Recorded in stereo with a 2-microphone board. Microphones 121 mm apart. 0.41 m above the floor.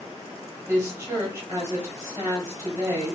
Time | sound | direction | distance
0.7 | a woman speaking | 25° right (ahead or behind) | 1.7 m